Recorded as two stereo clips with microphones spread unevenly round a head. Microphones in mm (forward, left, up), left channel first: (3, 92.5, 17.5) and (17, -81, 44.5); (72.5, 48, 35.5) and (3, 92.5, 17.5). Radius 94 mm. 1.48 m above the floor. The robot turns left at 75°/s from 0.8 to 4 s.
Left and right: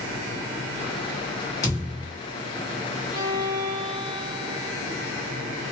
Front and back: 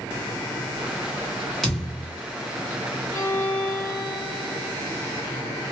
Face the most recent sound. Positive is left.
turn(degrees=-95)